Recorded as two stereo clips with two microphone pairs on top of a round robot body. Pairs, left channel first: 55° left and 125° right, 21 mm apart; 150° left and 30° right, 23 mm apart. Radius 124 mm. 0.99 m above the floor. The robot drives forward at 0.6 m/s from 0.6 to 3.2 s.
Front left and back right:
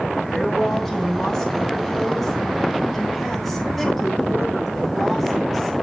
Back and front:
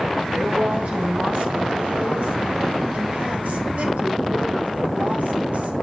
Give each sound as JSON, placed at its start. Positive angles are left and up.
{"t": 0.3, "sound": "a woman speaking", "azimuth_deg": -25, "distance_m": 6.5}